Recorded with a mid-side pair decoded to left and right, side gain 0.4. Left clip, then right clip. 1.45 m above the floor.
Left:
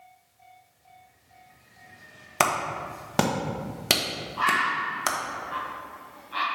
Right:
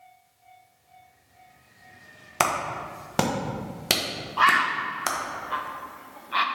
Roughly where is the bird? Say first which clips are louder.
Right 4 dB; ahead right.